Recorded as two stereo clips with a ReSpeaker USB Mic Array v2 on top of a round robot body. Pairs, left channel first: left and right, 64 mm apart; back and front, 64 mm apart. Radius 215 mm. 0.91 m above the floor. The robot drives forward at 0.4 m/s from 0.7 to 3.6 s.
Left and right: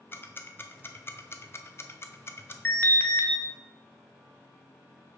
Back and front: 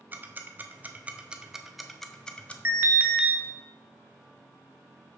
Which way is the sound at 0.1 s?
50° left.